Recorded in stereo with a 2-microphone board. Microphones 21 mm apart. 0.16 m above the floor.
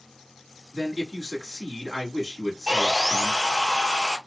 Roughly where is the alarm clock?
No alarm clock in this recording.